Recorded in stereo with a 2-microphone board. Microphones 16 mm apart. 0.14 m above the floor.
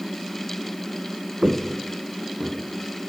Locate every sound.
1.4 s footsteps: 60° right (ahead or behind), 0.6 m; by 2.6 s 85° right, 1.3 m